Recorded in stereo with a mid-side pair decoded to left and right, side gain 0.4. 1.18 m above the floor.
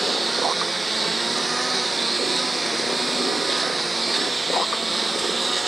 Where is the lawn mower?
15° right; by 5.7 s 20° right.